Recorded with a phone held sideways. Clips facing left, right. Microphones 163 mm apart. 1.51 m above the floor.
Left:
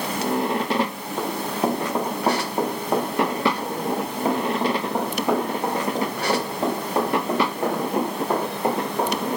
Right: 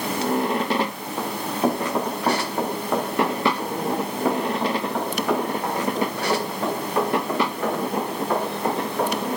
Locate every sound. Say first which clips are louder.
1.2 s running footsteps: even; 5° left (ahead or behind), 4.5 m; by 9.2 s 30° left (ahead or behind), 11 m